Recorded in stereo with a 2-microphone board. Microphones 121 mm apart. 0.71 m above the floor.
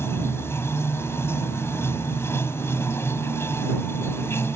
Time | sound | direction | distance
0.0 | running water | 20° left (ahead or behind) | ?